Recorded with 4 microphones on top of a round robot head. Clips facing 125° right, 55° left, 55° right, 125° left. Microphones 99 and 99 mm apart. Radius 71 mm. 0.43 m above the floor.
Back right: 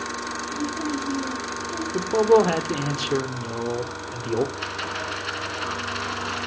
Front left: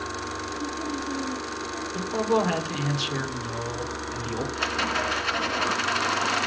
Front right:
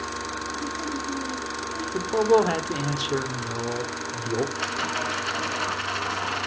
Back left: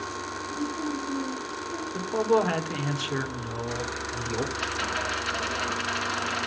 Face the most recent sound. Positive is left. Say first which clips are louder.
# front left 3 dB, front right 2 dB
turn(degrees=5)